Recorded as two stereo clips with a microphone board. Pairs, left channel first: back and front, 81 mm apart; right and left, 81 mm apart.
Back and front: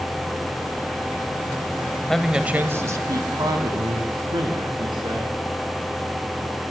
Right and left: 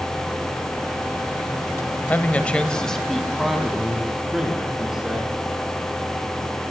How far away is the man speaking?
About 1.0 m.